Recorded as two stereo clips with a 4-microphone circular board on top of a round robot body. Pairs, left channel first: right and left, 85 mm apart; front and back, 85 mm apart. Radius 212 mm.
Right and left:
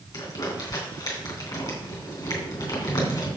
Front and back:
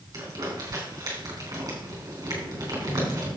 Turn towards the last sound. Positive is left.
turn(degrees=-130)